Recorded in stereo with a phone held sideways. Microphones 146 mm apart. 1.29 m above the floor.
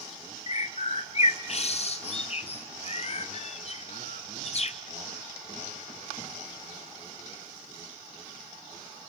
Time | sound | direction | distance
0.5 | a bird | 45° left (ahead or behind) | 0.7 m